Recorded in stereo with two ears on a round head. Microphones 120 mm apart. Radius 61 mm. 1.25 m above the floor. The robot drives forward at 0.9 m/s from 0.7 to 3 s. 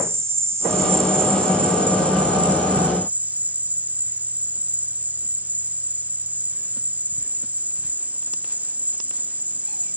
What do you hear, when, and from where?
0.0 s an insect: 20° right (ahead or behind); by 10.0 s 15° right (ahead or behind)